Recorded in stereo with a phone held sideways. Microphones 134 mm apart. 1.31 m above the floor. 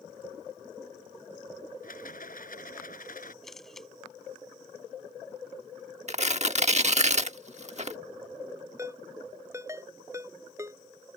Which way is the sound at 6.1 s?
55° right (ahead or behind).